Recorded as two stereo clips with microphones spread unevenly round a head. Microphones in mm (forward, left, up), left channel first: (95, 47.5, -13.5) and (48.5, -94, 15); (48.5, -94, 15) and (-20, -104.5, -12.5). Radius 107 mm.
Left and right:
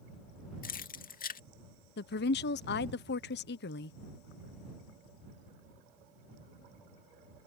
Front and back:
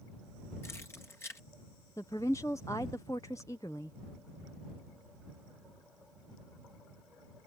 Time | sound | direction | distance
0.6 | keys jangling | 50° left | ?
2.0 | a woman speaking | 70° left | ?